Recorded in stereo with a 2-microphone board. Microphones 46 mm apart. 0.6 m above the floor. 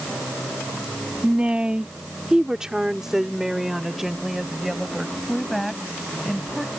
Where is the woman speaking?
25° right (ahead or behind); by 6.7 s centre (ahead or behind).